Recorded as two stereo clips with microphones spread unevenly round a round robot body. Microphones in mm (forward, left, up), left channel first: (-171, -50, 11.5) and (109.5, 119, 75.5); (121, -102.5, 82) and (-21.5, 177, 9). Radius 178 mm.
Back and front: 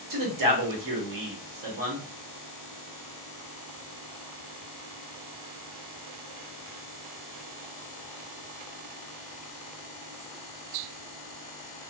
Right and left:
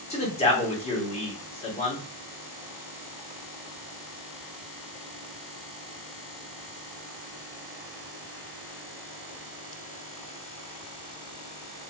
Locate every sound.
0.1 s a man speaking: 15° left, 1.4 m